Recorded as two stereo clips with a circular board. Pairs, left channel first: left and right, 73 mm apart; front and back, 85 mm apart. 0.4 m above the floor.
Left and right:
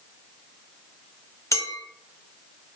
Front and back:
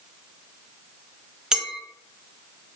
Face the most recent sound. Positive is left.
turn(degrees=100)